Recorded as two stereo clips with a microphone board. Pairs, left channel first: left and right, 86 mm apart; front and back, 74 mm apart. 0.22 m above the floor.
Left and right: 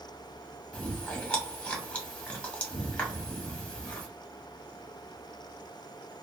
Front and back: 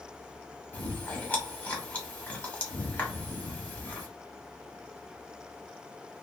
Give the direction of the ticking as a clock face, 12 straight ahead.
No ticking in this recording.